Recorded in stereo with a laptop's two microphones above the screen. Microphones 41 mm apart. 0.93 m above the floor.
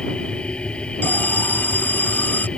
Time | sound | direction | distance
0.0 | a machine running | 25° left (ahead or behind) | ?
1.0 | an alarm | 50° left (ahead or behind) | ?